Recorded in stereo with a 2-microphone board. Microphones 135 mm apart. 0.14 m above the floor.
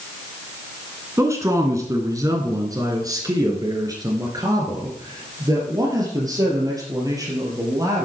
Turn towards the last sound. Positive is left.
turn(degrees=-25)  # may be behind; listen again after turning